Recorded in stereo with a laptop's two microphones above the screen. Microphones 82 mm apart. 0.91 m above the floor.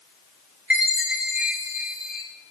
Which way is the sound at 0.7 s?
15° right (ahead or behind).